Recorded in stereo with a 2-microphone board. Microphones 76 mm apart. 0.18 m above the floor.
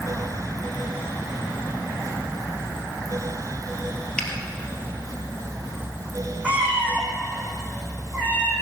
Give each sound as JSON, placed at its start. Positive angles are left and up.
{"t": 4.2, "sound": "a finger snap", "side_deg": 15, "distance_m": 2.5}
{"t": 6.4, "sound": "a cat meowing", "side_deg": -20, "distance_m": 3.5}